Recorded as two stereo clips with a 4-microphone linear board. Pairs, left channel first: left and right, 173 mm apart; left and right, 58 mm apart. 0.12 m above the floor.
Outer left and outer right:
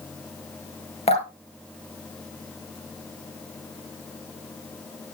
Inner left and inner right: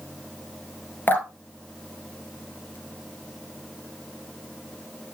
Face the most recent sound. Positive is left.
turn(degrees=35)  # may be behind; listen again after turning